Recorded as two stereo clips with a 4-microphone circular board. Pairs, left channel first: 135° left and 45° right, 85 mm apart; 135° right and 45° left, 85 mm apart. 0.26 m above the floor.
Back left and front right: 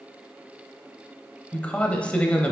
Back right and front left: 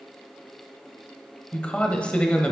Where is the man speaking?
175° left, 0.9 m.